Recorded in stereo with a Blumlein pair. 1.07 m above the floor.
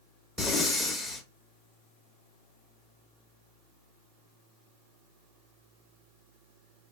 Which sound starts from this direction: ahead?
Breathing, at 0.4 s.